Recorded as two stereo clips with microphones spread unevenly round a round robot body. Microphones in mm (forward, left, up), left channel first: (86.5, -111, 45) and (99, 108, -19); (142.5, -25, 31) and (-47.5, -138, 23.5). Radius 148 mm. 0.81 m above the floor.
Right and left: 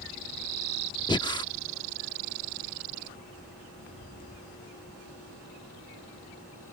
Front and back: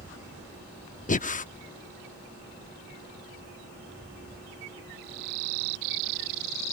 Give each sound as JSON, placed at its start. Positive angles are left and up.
{"t": 1.1, "sound": "breathing", "azimuth_deg": -25}